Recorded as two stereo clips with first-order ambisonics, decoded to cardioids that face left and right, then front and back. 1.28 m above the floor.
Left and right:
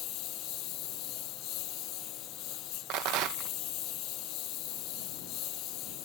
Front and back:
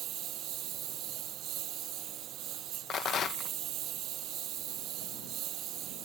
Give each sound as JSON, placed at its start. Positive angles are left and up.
{"t": 0.0, "sound": "a lawn mower", "azimuth_deg": 130}
{"t": 2.9, "sound": "a rattle", "azimuth_deg": -60}